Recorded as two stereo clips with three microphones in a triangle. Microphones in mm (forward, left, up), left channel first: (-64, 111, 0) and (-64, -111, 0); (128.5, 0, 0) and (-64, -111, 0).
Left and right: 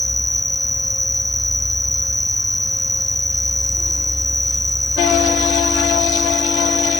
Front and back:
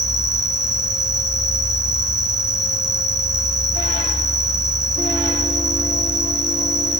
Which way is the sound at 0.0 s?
Straight behind.